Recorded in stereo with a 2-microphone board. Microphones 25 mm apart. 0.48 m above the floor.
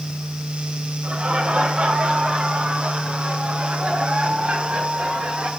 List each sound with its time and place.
1.0 s laughter: 60° right (ahead or behind), 6 m; by 5.5 s 55° right (ahead or behind), 8 m